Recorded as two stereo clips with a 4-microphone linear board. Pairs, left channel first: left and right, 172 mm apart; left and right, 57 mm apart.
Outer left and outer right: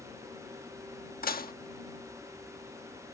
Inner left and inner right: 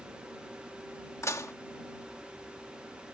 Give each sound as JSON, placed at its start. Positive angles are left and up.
{"t": 1.2, "sound": "dishes clattering", "side_deg": 60}